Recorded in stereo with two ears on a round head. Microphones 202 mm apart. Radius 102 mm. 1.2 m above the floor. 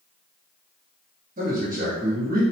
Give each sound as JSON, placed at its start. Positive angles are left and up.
{"t": 1.4, "sound": "a man speaking", "side_deg": -40, "distance_m": 1.5}